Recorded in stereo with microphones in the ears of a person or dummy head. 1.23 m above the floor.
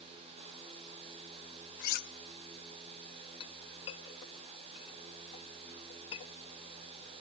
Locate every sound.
1.8 s cutlery clinking: 45° left (ahead or behind), 0.9 m
3.4 s a clink: 25° left (ahead or behind), 0.8 m